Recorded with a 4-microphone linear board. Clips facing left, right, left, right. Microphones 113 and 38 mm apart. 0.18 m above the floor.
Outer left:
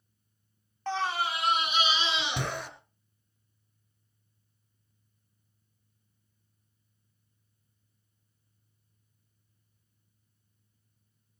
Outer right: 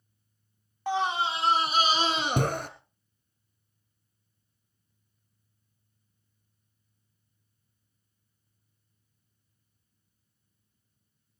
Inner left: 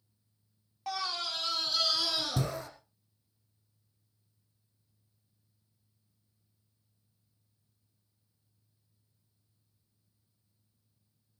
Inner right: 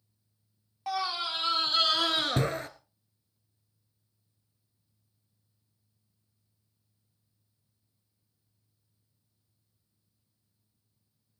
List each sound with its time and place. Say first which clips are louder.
0.9 s a scream: outer right 3 dB, inner right 4 dB; 10° right (ahead or behind), 1.1 m; by 2.7 s 50° right (ahead or behind), 2.5 m